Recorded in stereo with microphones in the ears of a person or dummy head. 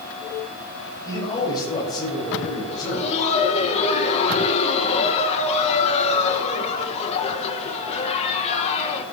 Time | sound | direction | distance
1.0 | a man speaking | 25° left (ahead or behind) | 5 m
2.7 | laughter | 35° left (ahead or behind) | 1.7 m